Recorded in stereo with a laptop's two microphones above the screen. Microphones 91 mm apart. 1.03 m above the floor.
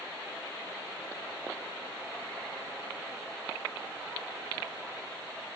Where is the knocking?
I don't hear knocking.